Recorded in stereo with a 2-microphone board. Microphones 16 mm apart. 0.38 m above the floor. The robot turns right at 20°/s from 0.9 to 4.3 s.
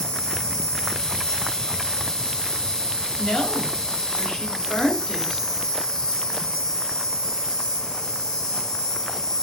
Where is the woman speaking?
65° left (ahead or behind), 1.9 m; by 5.5 s 55° left (ahead or behind), 1.9 m.